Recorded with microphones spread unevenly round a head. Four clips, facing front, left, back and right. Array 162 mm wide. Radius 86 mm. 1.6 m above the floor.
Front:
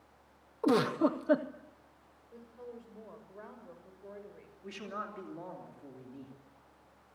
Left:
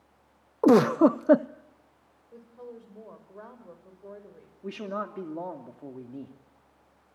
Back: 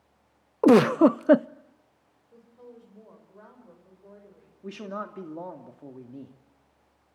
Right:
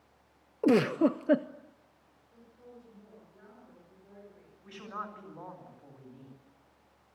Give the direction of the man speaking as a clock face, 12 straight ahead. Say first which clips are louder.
Left 8 dB, back 6 dB; 8 o'clock.